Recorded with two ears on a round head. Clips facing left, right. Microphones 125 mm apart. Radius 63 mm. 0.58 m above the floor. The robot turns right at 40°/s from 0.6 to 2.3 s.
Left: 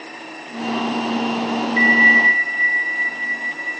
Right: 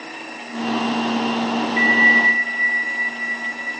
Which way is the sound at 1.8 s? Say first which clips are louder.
Left 1 dB; 50° left (ahead or behind).